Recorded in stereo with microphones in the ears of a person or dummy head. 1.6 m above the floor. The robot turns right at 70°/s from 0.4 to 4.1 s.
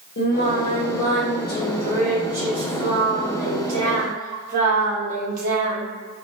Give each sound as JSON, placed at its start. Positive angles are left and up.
{"t": 0.2, "sound": "singing", "azimuth_deg": 55, "distance_m": 1.0}